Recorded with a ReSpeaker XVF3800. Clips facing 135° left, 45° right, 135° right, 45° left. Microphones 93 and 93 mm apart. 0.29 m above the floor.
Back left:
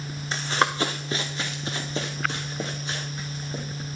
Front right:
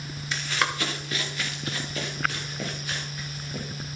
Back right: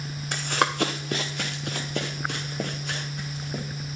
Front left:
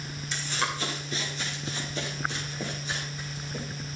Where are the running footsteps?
170° right, 0.9 m; by 3.6 s 160° right, 5.5 m.